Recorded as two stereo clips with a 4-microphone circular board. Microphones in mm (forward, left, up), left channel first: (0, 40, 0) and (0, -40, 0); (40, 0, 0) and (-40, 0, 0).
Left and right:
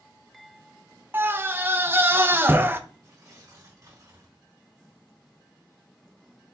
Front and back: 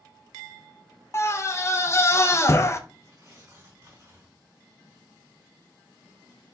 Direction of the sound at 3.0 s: 125° right.